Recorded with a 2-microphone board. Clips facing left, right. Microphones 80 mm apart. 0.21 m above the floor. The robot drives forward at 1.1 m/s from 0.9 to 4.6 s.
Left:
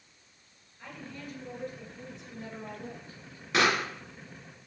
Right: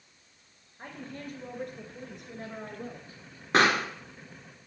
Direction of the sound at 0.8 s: 45° right (ahead or behind).